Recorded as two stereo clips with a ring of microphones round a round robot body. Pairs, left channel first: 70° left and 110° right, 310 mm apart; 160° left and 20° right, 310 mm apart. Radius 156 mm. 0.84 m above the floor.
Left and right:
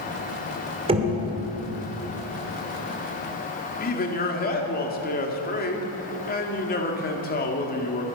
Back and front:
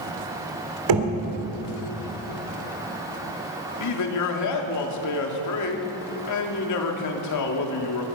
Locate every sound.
0.9 s knocking: 40° right, 2.5 m
3.8 s a man speaking: 130° left, 2 m